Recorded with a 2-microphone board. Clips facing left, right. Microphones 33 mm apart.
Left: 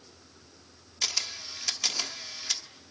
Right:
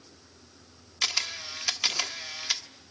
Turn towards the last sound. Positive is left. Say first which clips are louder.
# right 3 dB
turn(degrees=-30)  # may be behind; listen again after turning